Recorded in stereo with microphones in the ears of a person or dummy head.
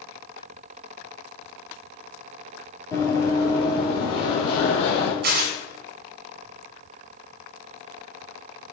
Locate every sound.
2.9 s running footsteps: 15° left (ahead or behind), 1.5 m; by 5.1 s 35° left (ahead or behind), 2.5 m
5.2 s tearing paper: 55° right (ahead or behind), 1.6 m